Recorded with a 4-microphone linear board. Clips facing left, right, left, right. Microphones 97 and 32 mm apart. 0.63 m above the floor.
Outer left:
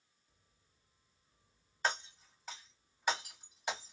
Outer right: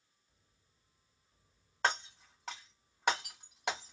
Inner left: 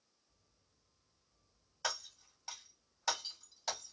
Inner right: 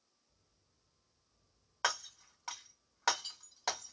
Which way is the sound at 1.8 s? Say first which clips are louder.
Outer right 3 dB, inner right 5 dB; 75° right (ahead or behind).